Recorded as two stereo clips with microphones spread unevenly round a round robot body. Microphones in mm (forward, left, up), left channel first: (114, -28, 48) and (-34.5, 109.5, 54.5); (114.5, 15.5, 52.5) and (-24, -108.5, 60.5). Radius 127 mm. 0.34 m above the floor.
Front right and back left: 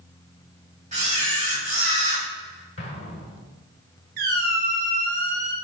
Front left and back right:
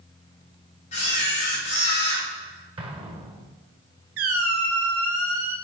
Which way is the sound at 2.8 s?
85° right.